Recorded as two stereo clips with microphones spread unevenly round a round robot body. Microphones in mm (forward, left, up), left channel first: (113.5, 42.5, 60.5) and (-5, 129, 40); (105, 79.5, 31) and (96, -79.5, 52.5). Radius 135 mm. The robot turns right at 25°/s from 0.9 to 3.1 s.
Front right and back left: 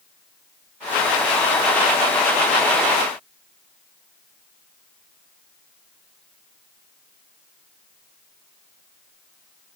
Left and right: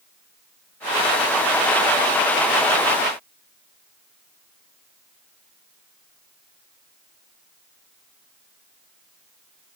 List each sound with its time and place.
Only background noise.